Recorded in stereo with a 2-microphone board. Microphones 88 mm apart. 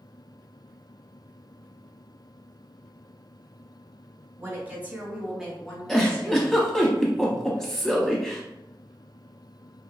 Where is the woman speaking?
30° right (ahead or behind), 1.2 m; by 6.6 s 30° left (ahead or behind), 1.2 m.